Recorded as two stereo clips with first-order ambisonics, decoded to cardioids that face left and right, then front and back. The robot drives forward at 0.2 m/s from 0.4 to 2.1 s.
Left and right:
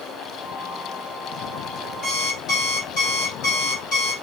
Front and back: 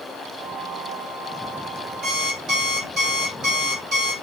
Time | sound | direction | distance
2.0 | an alarm clock | 130° left | 1.5 m